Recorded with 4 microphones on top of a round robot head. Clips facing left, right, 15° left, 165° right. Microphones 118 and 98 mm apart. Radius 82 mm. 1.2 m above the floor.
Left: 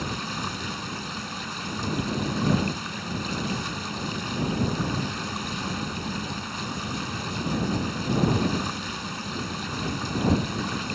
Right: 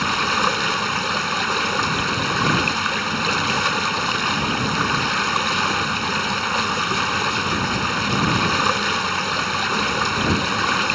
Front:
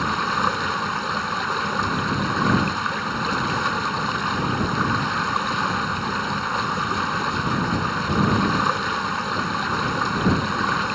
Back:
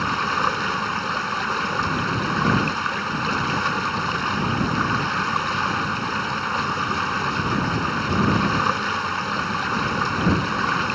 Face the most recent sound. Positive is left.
turn(degrees=-75)